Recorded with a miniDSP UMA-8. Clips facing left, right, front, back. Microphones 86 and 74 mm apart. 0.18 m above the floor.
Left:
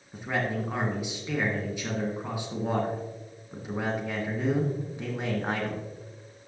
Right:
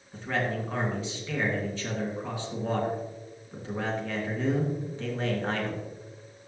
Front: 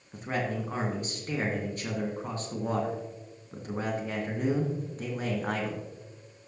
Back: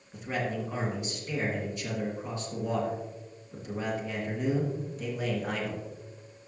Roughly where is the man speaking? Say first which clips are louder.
Even, front 1 dB; ahead.